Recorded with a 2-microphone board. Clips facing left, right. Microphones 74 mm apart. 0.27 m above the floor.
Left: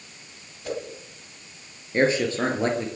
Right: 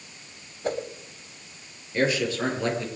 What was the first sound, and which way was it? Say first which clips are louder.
A whoosh: right 3 dB; 40° right (ahead or behind).